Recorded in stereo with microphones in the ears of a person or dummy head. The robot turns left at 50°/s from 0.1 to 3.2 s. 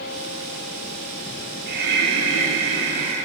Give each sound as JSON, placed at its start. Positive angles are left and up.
{"t": 1.7, "sound": "breathing", "azimuth_deg": -55, "distance_m": 6.5}